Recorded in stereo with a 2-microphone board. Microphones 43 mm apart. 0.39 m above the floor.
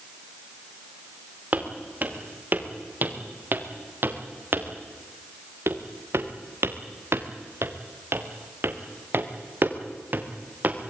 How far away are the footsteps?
About 4.5 m.